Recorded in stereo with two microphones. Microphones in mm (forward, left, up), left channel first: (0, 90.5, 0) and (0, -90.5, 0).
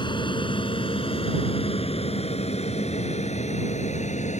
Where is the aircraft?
25° left (ahead or behind); by 4.4 s 40° left (ahead or behind).